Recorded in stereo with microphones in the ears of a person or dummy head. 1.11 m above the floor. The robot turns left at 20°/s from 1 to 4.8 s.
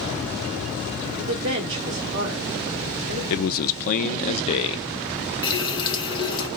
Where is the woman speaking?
65° right (ahead or behind), 1.7 m; by 3.2 s 35° right (ahead or behind), 1.7 m.